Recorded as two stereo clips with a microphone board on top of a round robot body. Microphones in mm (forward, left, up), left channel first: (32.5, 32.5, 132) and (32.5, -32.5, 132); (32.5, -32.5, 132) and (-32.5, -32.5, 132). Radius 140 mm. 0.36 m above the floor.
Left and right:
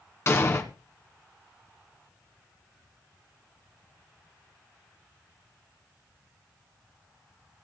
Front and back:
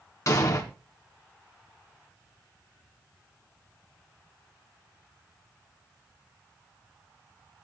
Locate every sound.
0.3 s an explosion: 40° left, 1.9 m